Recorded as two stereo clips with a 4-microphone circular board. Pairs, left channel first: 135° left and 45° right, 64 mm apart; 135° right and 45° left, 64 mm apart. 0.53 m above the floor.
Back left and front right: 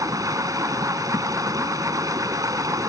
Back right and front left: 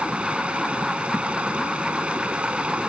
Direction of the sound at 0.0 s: 25° right.